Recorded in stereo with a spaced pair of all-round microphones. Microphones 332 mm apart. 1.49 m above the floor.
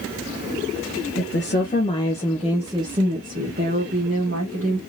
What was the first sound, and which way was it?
A woman speaking, 40° left (ahead or behind).